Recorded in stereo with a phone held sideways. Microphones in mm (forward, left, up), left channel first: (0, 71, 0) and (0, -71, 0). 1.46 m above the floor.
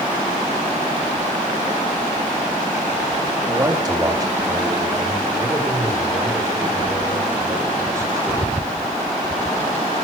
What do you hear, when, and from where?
3.5 s a man speaking: 25° right (ahead or behind), 3 m; by 8.5 s 20° right (ahead or behind), 7 m